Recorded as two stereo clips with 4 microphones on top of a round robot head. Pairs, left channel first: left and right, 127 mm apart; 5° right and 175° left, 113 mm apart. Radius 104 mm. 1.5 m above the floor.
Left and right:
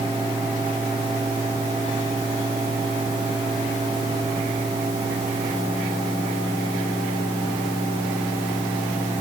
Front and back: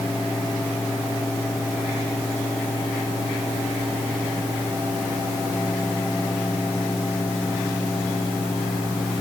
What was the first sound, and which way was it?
Only background noise.